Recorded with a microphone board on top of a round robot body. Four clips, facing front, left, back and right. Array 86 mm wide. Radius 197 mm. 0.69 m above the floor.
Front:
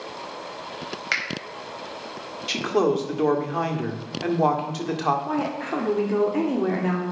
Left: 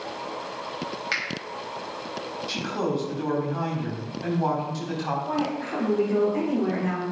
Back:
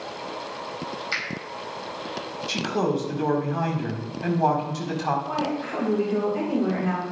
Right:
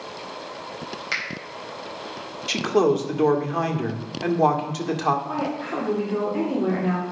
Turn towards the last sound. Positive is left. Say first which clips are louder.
# even, front 1 dB
turn(degrees=-10)